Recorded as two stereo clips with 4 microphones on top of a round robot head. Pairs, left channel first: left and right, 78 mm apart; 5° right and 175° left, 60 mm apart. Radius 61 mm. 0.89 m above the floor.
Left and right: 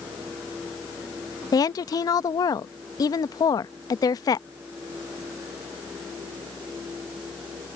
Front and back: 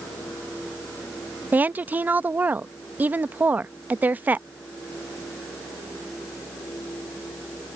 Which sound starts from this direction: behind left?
A woman speaking, at 1.5 s.